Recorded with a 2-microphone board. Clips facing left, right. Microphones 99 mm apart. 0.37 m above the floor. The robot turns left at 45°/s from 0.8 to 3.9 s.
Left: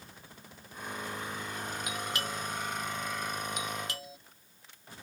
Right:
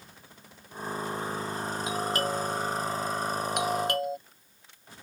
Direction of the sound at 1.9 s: 30° right (ahead or behind).